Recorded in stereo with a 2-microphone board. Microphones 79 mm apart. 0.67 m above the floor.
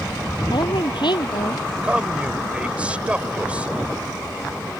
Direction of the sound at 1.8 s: 15° right (ahead or behind).